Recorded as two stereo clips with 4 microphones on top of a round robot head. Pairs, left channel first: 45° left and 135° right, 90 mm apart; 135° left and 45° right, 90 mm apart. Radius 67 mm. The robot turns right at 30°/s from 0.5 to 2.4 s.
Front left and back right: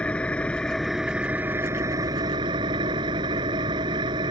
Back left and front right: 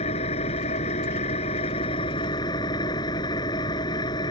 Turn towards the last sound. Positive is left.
turn(degrees=180)